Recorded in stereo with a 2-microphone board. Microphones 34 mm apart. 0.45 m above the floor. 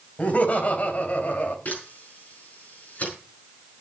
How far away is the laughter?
About 3.5 m.